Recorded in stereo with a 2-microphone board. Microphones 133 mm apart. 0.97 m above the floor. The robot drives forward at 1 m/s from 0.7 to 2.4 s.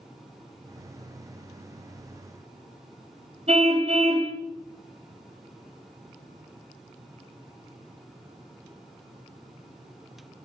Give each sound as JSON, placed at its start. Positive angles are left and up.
{"t": 3.5, "sound": "a car horn", "side_deg": -55, "distance_m": 3.0}